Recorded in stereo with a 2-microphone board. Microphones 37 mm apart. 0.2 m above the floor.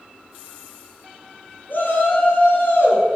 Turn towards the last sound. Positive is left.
turn(degrees=65)  # may be behind; listen again after turning